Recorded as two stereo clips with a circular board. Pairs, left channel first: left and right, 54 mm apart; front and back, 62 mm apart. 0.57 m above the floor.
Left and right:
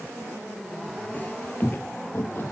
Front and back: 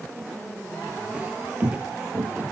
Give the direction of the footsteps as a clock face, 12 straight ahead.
8 o'clock.